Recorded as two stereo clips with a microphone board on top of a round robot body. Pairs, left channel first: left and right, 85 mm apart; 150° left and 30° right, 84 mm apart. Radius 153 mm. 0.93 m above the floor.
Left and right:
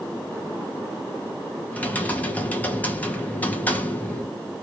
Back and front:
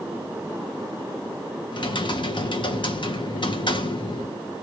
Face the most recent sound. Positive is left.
turn(degrees=160)